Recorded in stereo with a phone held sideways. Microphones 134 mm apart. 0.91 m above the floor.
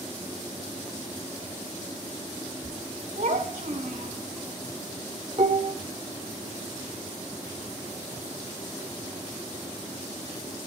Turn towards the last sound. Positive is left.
turn(degrees=-60)  # may be behind; listen again after turning